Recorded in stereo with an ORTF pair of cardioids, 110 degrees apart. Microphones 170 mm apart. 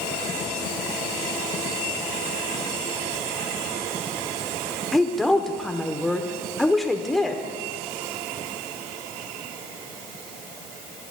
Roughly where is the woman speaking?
Ahead.